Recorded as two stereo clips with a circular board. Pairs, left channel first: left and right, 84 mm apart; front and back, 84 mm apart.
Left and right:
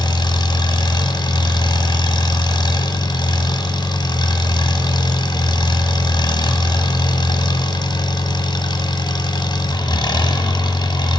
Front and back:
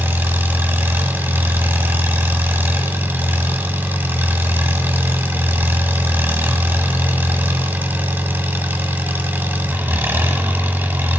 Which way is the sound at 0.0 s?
115° left.